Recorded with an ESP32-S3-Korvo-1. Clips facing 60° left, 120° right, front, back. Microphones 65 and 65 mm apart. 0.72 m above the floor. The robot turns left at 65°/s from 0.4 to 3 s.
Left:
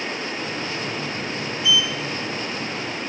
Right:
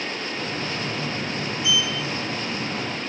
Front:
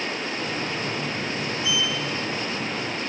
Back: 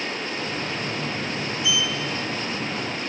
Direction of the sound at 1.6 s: 55° right.